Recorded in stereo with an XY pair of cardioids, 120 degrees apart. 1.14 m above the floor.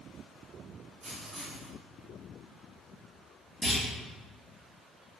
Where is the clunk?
5° right, 1.8 m.